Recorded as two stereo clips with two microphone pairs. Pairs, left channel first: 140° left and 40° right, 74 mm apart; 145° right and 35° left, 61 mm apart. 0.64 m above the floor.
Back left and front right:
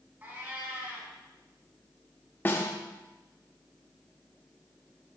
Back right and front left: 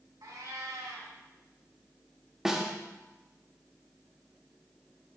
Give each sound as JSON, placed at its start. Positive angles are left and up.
{"t": 0.2, "sound": "a cat meowing", "azimuth_deg": 25, "distance_m": 2.5}
{"t": 2.5, "sound": "a snare drum", "azimuth_deg": 110, "distance_m": 1.2}